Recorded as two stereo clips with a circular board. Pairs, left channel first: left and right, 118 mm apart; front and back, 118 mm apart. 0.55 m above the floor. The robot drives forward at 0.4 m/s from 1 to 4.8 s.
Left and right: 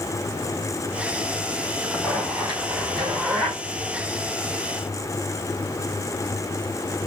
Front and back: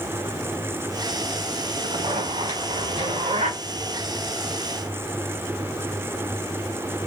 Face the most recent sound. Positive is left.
turn(degrees=-175)